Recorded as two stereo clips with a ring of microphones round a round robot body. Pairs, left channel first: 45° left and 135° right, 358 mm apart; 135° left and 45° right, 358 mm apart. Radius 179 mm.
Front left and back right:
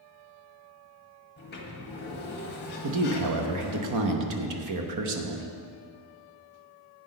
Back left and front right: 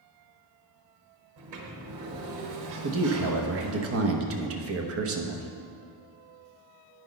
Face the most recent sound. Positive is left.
turn(degrees=-95)